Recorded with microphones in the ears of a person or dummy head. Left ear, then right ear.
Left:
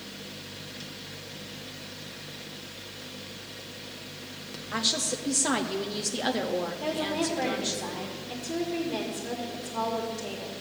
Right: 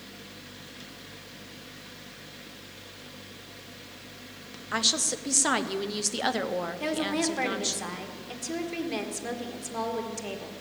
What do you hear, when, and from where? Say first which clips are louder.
0.0 s a fan: left 4 dB; centre (ahead or behind), 0.9 m
4.7 s a woman speaking: right 2 dB; 25° right (ahead or behind), 0.6 m
6.8 s a woman speaking: right 1 dB; 65° right (ahead or behind), 1.8 m